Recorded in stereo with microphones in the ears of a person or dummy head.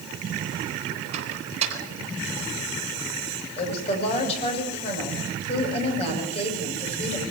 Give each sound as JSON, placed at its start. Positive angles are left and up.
{"t": 1.1, "sound": "a microwave", "side_deg": -40, "distance_m": 7.5}
{"t": 3.6, "sound": "a woman speaking", "side_deg": 30, "distance_m": 7.5}